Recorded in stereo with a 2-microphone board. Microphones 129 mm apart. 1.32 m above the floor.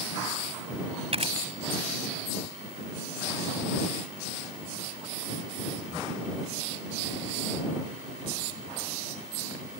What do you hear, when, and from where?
1.1 s a camera shutter: 50° right (ahead or behind)